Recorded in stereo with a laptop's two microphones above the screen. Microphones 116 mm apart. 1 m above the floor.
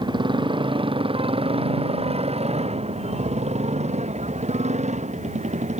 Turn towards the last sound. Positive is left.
turn(degrees=-85)